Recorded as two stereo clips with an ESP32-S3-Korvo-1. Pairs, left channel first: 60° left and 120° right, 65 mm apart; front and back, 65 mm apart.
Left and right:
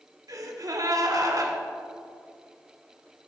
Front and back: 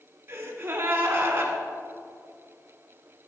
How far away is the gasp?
About 1.8 m.